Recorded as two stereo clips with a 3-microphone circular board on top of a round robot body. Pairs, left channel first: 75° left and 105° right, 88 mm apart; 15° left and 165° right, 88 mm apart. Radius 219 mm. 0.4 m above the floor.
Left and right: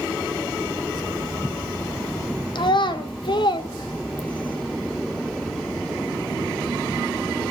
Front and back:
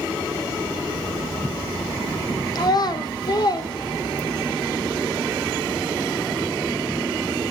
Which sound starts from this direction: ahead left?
A child speaking, at 2.5 s.